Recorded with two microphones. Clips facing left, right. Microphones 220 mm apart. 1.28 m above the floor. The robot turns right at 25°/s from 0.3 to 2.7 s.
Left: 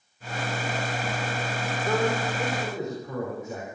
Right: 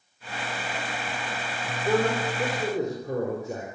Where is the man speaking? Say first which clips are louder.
Right 2 dB; 15° right (ahead or behind), 4 m; by 3.6 s 35° right (ahead or behind), 4 m.